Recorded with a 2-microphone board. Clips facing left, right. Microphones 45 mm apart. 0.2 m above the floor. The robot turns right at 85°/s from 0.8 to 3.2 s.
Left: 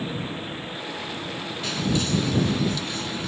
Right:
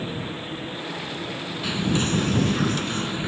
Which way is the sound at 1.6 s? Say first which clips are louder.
Right 2 dB; 165° right.